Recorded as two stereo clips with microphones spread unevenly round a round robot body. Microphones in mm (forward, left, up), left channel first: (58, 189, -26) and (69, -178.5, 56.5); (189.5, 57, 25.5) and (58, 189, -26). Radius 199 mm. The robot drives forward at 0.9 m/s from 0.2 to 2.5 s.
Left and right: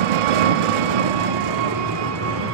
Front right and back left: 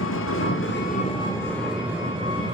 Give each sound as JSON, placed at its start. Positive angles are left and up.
{"t": 0.0, "sound": "an engine running", "azimuth_deg": -90, "distance_m": 1.2}